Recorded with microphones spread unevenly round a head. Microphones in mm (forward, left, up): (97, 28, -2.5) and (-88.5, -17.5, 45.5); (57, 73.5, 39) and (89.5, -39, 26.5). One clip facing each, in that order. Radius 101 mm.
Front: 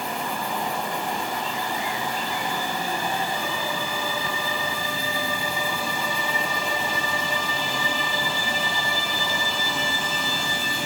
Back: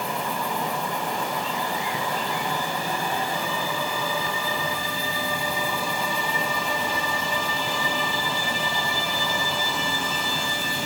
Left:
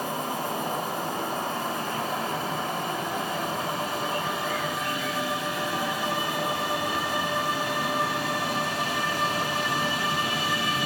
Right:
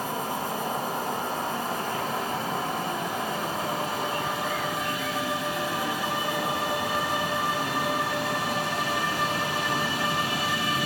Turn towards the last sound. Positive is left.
turn(degrees=180)